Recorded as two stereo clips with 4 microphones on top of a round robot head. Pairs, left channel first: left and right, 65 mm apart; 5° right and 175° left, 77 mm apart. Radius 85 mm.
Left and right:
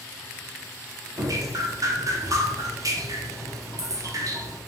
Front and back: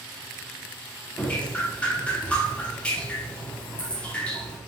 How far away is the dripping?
About 0.6 m.